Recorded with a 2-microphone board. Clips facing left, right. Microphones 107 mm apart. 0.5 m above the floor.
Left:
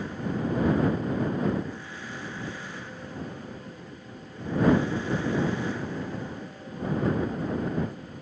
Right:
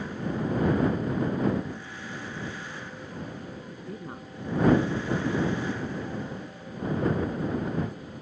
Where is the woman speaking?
80° right.